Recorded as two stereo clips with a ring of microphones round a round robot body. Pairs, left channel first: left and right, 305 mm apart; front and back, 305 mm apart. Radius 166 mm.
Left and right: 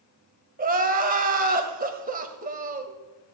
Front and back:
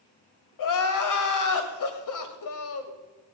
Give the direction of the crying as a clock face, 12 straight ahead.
1 o'clock.